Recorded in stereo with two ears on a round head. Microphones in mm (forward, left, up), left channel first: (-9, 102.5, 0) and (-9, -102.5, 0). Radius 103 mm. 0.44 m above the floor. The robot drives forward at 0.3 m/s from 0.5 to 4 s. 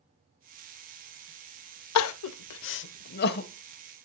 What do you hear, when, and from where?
1.9 s crying: 80° left, 0.5 m; by 3.5 s 45° left (ahead or behind), 0.8 m